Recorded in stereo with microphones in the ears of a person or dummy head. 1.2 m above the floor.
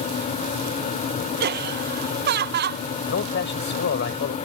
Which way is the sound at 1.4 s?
55° right (ahead or behind).